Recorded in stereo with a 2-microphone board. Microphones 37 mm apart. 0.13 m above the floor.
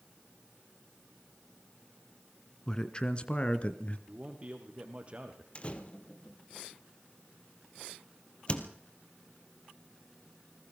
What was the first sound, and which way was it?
A man speaking, 20° left (ahead or behind).